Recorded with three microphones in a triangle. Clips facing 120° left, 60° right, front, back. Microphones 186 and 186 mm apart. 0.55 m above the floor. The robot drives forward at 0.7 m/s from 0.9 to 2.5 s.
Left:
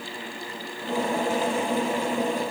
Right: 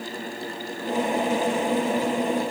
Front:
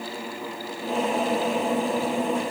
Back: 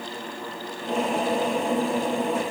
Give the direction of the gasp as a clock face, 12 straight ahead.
I don't hear a gasp.